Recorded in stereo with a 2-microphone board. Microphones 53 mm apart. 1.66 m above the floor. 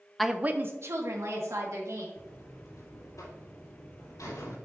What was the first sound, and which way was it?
A woman speaking, centre (ahead or behind).